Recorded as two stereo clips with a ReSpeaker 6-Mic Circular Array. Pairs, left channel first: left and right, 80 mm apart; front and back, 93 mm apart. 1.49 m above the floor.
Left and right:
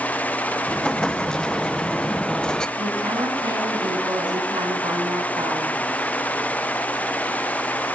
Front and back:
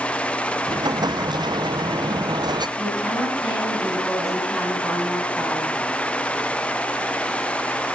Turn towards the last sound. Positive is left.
turn(degrees=-90)